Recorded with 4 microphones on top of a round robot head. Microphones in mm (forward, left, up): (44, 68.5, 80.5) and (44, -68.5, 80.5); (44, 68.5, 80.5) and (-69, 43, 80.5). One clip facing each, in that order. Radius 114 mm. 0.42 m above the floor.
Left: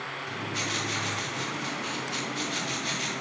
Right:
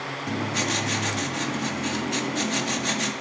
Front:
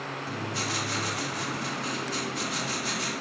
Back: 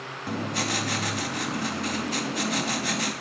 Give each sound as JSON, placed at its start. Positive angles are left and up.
{"t": 0.3, "sound": "writing", "azimuth_deg": -130, "distance_m": 2.5}